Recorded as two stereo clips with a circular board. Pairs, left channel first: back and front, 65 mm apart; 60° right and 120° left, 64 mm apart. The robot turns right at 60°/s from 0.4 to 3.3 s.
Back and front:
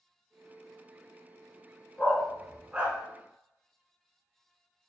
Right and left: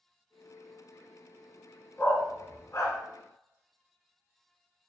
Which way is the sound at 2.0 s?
115° right.